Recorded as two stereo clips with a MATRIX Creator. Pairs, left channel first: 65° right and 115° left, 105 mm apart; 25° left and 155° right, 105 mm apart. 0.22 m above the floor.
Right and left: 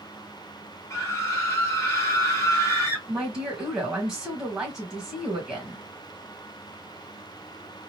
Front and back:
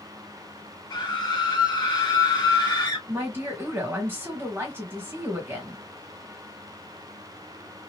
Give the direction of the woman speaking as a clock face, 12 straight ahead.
6 o'clock.